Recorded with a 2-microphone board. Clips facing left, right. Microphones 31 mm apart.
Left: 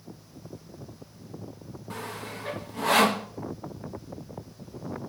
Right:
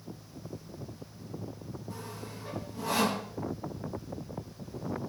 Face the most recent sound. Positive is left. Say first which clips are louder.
# left 10 dB
turn(degrees=65)  # may be behind; listen again after turning